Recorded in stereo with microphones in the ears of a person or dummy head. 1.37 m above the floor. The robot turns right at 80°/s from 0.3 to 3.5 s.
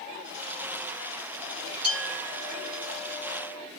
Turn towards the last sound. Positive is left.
turn(degrees=35)